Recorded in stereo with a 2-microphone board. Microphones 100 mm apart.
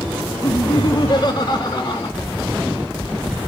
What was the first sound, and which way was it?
Laughter, 45° left (ahead or behind).